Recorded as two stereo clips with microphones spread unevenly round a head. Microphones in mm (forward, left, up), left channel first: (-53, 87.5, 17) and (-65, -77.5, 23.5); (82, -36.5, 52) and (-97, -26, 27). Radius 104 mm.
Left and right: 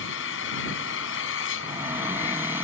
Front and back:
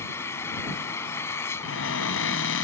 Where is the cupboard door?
15° right.